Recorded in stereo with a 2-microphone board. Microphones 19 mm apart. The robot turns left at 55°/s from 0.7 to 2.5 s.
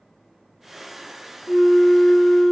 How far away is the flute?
About 1.0 m.